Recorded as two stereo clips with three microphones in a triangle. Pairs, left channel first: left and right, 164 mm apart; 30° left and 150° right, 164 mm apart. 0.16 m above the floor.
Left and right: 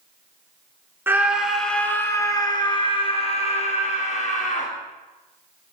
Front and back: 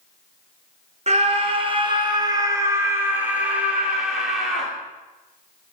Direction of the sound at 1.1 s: 160° right.